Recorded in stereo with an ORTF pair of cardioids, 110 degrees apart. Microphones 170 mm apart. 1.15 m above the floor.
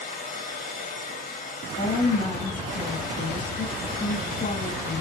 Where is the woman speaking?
45° left, 1.9 m.